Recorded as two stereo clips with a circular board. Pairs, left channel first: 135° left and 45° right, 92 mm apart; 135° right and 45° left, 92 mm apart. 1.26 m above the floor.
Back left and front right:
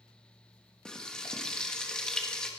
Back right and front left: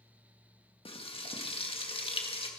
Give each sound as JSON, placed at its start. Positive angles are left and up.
{"t": 0.8, "sound": "frying", "azimuth_deg": -145, "distance_m": 1.8}